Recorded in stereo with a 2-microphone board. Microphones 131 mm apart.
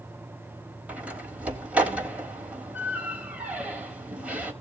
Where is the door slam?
10° right (ahead or behind), 4.5 m.